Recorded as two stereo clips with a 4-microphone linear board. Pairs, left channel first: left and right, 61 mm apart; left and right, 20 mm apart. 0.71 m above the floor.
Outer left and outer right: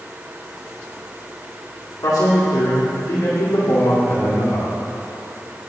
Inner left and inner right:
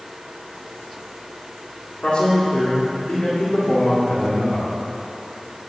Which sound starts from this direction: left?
A man speaking, at 2.0 s.